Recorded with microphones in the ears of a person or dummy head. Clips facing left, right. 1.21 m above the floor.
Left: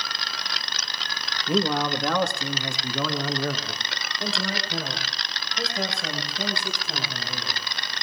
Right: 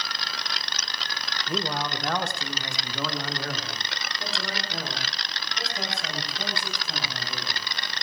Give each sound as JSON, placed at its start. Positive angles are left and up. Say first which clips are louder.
{"t": 1.5, "sound": "a man speaking", "louder": "left 7 dB", "side_deg": 55, "distance_m": 1.3}